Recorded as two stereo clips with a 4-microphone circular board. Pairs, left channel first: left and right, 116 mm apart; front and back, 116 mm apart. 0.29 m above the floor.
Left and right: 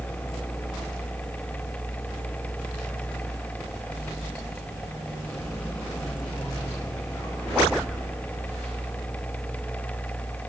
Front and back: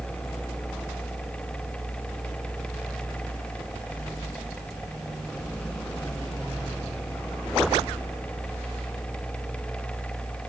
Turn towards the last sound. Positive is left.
No sound to turn to.